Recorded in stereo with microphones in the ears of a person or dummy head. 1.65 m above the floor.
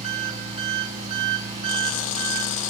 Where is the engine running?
30° right (ahead or behind), 4.5 m.